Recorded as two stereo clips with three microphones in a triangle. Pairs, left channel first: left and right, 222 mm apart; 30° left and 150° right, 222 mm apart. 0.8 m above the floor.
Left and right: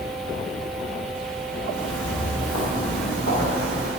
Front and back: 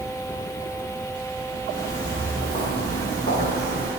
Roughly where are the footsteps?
Left.